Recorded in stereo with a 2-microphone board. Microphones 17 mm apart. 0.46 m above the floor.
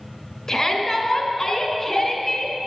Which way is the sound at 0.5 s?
35° left (ahead or behind).